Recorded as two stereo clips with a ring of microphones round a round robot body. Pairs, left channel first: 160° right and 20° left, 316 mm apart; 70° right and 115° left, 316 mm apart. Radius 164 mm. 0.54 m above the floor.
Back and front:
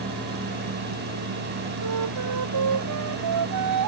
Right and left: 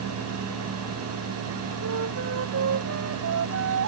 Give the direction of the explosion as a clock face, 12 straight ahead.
No explosion in this recording.